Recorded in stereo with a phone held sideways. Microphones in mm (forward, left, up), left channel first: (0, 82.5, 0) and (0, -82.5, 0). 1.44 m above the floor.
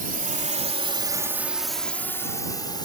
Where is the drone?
60° right (ahead or behind); by 2.9 s 25° left (ahead or behind).